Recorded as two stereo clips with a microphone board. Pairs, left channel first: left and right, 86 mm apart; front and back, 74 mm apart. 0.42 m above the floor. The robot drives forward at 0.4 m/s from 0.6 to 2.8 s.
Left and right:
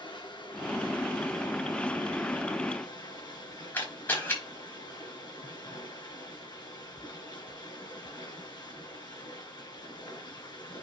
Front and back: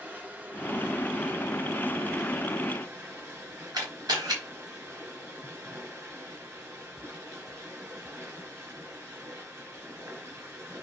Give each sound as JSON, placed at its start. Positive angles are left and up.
{"t": 0.0, "sound": "running water", "azimuth_deg": 115, "distance_m": 4.0}
{"t": 3.7, "sound": "a camera shutter", "azimuth_deg": 155, "distance_m": 4.0}